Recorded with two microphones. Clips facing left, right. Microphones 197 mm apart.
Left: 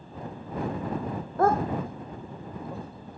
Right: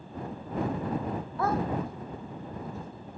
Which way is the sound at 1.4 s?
45° left (ahead or behind).